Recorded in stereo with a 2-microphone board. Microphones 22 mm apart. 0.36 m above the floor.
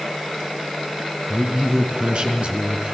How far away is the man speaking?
About 4.5 m.